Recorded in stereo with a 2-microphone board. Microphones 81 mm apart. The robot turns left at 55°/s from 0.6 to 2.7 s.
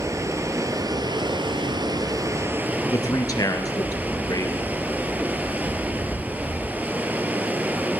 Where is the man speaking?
50° left (ahead or behind), 2.5 m.